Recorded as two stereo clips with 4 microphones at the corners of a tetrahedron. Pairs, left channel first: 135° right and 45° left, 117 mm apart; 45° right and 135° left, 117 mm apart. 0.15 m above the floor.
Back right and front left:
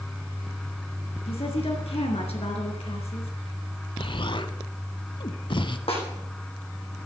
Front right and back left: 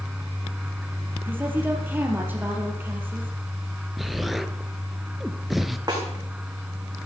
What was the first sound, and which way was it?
A woman speaking, 155° right.